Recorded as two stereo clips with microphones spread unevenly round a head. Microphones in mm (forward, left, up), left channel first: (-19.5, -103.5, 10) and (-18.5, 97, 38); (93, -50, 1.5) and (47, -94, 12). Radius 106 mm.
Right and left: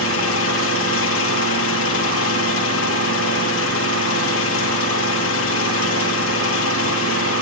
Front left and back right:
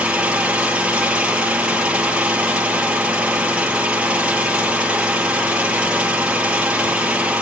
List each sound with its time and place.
0.0 s an engine running: 65° right, 9 m